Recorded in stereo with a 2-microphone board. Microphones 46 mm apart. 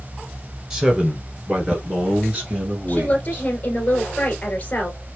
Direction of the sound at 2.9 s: 35° left (ahead or behind).